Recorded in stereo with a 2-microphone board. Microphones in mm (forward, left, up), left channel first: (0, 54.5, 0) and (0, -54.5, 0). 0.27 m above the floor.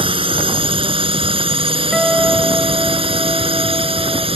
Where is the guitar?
Centre (ahead or behind).